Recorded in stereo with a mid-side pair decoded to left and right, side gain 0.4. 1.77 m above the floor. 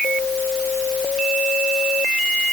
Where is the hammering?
No hammering in this recording.